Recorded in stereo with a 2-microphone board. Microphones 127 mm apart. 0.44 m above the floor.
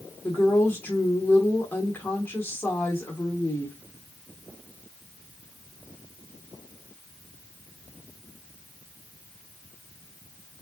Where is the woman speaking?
15° left (ahead or behind), 0.9 m.